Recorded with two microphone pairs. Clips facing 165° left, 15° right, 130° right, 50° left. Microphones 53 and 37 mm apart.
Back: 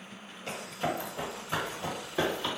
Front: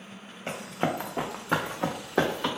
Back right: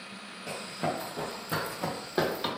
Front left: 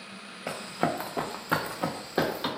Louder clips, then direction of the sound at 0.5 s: Front 4 dB, front left 4 dB; 45° left.